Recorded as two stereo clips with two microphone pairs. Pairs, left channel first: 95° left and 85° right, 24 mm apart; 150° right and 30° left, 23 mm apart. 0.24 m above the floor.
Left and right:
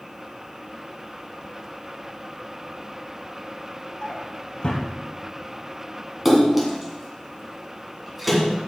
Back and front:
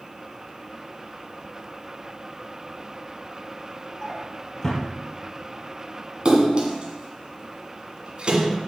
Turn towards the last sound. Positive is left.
turn(degrees=-10)